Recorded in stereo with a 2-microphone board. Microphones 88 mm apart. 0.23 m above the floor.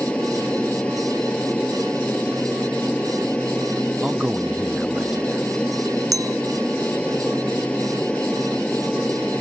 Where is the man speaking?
10° right (ahead or behind).